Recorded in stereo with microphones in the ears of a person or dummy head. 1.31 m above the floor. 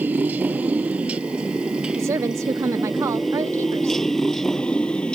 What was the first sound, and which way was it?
A motorcycle, 5° right (ahead or behind).